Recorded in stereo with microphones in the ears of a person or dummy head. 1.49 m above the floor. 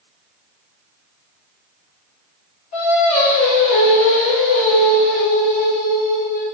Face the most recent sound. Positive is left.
turn(degrees=40)  # may be behind; listen again after turning